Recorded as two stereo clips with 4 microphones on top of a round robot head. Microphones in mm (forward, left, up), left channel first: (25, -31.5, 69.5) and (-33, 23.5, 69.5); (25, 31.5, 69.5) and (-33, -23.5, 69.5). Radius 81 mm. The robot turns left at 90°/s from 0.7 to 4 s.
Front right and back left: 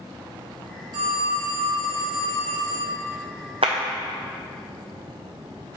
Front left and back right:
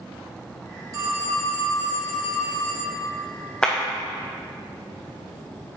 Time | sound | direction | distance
0.9 | a phone ringing | 175° left | 1.4 m
3.6 | a clap | 120° left | 0.5 m